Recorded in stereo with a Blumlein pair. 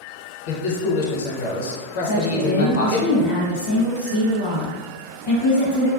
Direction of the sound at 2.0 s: 45° left.